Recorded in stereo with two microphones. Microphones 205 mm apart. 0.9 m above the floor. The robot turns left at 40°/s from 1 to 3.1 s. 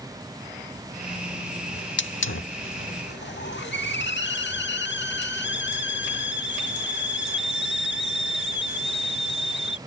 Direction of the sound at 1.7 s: 120° left.